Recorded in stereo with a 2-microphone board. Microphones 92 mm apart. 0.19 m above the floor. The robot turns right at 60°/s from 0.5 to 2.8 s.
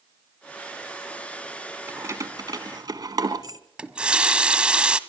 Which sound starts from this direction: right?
Keys jangling, at 1.9 s.